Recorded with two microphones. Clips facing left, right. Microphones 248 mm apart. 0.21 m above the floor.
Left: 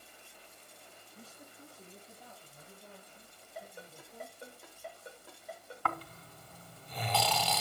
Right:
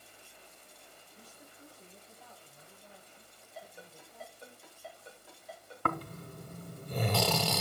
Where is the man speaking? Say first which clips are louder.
Left 3 dB; 40° left (ahead or behind), 6 m; by 4.5 s 65° left (ahead or behind), 9.5 m.